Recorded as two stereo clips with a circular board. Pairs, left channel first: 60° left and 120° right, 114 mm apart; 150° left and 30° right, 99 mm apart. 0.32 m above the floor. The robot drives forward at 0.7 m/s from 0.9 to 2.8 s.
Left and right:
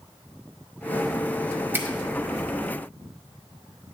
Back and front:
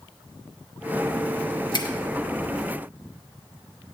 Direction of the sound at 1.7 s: 175° left.